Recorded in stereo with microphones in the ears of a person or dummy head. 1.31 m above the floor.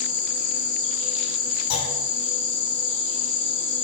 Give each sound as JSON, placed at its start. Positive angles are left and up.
{"t": 0.0, "sound": "an insect", "side_deg": 70, "distance_m": 2.0}
{"t": 1.7, "sound": "a clunk", "side_deg": 80, "distance_m": 5.0}